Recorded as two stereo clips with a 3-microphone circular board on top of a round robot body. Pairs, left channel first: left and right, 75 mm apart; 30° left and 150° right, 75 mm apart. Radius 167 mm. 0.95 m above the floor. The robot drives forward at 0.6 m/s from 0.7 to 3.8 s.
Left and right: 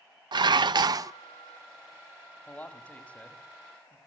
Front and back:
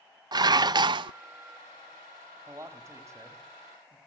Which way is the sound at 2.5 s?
160° left.